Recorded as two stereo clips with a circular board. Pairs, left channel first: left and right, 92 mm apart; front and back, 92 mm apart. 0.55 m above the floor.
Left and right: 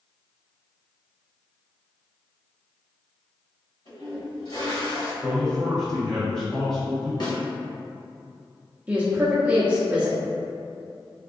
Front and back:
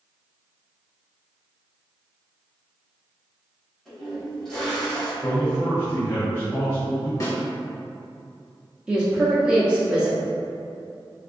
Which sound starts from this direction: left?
A toilet flushing, at 3.9 s.